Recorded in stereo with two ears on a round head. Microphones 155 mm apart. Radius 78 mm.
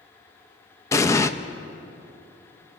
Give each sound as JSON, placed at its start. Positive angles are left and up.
{"t": 0.9, "sound": "an explosion", "side_deg": 15, "distance_m": 0.6}